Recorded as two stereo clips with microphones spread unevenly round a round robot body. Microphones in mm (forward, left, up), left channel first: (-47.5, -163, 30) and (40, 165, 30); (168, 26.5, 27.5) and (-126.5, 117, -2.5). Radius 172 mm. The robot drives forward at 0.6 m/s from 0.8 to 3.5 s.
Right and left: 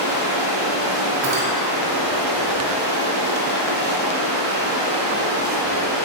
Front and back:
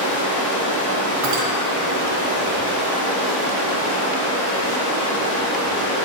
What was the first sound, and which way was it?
Running water, 65° right.